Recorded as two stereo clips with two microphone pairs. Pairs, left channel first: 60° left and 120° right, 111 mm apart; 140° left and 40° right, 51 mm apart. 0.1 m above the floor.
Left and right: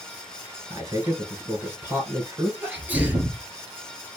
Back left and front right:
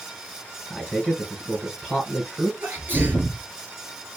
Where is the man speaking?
100° right, 1.7 m.